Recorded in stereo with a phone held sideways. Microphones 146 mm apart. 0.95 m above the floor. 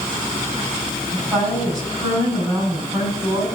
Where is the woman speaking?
20° right (ahead or behind), 7 m.